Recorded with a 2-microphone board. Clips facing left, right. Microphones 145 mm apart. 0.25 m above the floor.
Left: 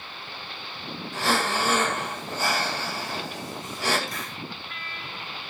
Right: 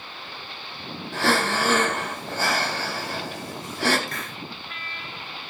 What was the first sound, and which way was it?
Breathing, 80° right.